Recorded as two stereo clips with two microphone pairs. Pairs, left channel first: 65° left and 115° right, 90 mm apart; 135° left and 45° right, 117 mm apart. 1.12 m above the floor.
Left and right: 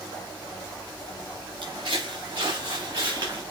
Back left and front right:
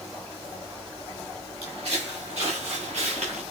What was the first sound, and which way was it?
Footsteps, 80° right.